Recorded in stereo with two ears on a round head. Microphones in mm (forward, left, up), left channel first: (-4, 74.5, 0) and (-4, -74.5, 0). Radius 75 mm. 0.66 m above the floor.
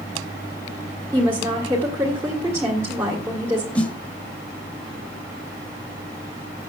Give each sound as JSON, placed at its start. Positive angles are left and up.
{"t": 1.1, "sound": "a woman speaking", "side_deg": -15, "distance_m": 2.0}
{"t": 3.8, "sound": "a snare drum", "side_deg": 5, "distance_m": 1.2}